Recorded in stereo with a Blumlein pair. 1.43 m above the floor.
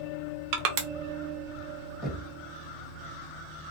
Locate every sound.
0.5 s crushing: 45° right, 0.6 m
2.0 s knocking: straight ahead, 1.5 m